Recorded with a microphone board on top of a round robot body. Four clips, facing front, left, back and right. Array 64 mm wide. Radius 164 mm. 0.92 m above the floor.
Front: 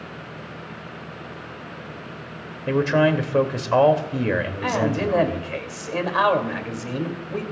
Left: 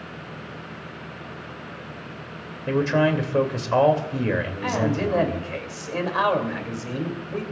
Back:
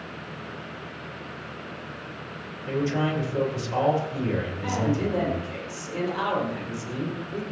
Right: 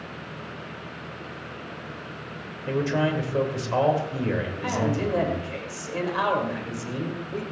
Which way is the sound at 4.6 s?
20° left.